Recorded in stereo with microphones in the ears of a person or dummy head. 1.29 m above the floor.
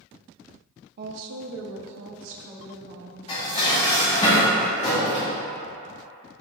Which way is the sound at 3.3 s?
30° left (ahead or behind).